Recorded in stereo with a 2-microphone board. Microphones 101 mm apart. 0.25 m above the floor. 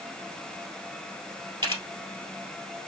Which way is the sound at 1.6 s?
55° right (ahead or behind).